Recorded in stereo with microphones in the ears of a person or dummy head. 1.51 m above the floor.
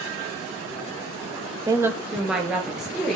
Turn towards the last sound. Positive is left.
turn(degrees=0)  # may be behind; listen again after turning